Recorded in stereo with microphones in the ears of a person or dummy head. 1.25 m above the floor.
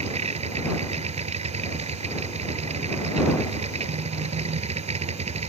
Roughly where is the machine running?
Right.